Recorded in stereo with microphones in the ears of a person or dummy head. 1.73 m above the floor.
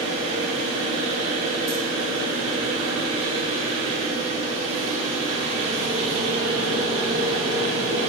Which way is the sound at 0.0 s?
30° right (ahead or behind).